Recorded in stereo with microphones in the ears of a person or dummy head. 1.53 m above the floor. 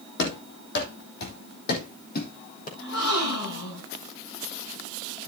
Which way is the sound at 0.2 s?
60° left (ahead or behind).